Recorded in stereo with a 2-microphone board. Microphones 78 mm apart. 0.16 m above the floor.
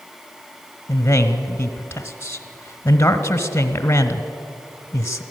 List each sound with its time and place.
0.9 s a man speaking: 30° left (ahead or behind), 1.2 m